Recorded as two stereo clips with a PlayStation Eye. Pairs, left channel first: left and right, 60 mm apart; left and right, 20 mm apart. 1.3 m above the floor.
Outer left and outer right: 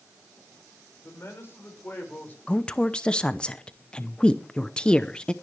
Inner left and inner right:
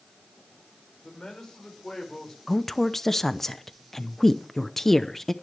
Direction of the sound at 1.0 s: 45° left (ahead or behind).